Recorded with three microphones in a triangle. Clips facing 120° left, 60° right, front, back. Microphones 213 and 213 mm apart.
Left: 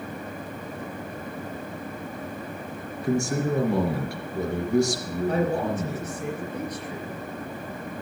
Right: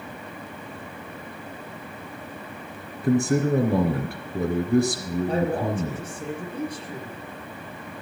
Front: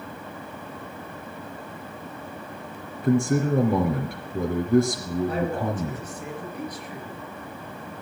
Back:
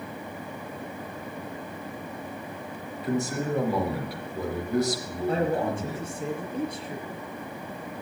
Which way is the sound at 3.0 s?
35° right.